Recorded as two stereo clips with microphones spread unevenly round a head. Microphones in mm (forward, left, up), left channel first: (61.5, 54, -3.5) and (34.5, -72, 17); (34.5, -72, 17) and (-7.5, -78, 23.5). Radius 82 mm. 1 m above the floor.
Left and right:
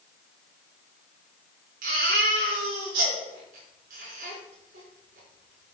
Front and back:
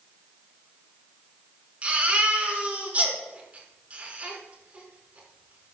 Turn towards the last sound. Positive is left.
turn(degrees=-115)